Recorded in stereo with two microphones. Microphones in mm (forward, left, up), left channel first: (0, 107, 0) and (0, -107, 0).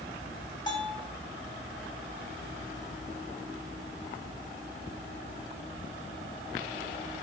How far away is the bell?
About 8.5 m.